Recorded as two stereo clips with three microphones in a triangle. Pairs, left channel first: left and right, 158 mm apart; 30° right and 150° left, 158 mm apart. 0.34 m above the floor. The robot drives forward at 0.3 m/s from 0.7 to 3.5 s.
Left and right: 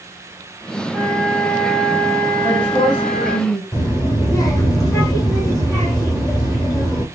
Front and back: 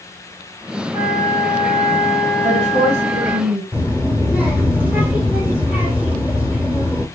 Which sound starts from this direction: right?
A flute, at 0.9 s.